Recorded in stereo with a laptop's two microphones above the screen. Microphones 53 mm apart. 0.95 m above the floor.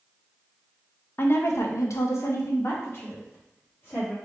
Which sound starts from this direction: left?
A woman speaking, at 1.2 s.